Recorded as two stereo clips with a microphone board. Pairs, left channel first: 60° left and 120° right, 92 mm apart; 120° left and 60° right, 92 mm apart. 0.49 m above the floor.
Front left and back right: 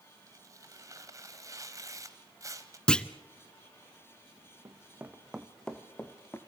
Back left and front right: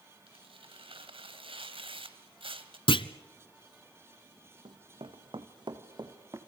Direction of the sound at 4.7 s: 70° right.